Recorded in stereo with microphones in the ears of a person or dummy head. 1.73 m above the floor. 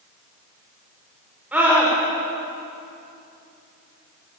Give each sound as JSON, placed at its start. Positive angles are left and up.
{"t": 1.5, "sound": "a scream", "side_deg": -5, "distance_m": 5.5}